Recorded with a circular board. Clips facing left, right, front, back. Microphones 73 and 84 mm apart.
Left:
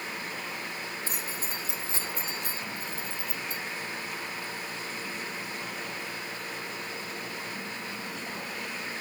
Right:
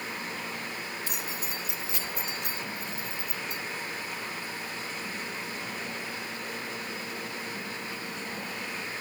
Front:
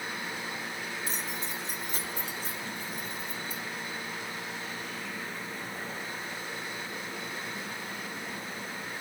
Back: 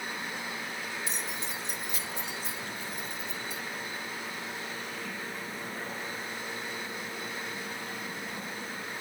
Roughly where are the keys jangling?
Ahead left.